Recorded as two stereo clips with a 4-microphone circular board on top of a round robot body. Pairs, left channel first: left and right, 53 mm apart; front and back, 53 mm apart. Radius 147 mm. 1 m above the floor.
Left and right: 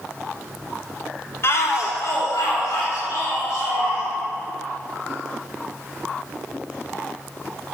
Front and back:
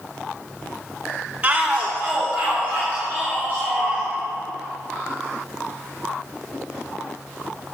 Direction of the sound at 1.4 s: 110° left.